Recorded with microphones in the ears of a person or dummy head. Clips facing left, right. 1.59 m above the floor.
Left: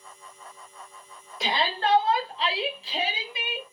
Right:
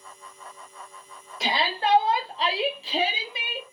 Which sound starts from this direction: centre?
A shout, at 1.4 s.